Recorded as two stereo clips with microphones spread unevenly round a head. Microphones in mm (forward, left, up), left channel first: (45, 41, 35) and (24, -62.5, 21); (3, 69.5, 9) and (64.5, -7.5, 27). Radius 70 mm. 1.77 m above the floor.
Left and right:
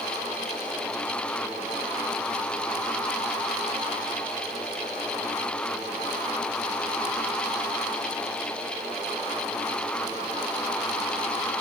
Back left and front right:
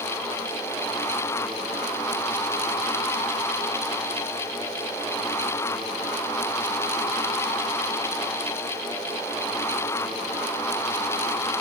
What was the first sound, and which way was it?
Only background noise.